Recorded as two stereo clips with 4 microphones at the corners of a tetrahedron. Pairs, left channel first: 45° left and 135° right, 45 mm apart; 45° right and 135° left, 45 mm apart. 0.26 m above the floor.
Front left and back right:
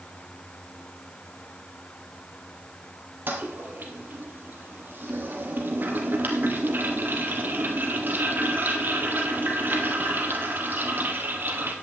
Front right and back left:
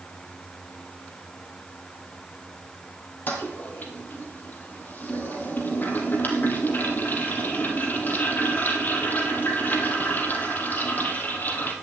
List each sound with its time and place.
3.3 s a toilet flushing: 90° right, 3 m